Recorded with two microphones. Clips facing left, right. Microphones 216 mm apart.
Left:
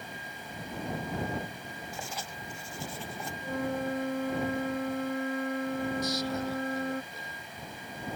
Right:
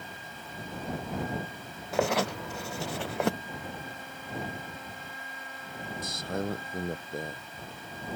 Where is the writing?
75° right (ahead or behind).